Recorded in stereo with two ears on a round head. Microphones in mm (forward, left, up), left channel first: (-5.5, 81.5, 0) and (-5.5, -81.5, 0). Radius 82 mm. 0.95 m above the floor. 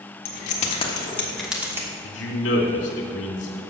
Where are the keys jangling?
55° left (ahead or behind), 1.3 m; by 1.9 s 15° right (ahead or behind), 1.5 m.